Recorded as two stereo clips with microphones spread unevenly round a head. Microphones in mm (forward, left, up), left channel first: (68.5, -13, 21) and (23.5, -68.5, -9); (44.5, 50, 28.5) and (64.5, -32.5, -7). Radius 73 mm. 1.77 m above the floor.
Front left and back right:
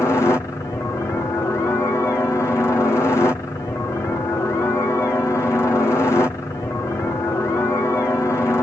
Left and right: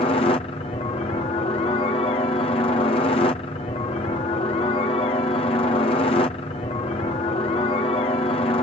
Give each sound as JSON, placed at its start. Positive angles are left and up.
{"t": 0.0, "sound": "a helicopter", "azimuth_deg": 130}